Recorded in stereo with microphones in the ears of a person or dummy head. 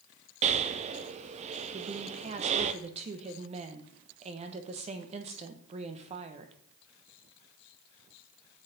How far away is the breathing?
About 0.5 m.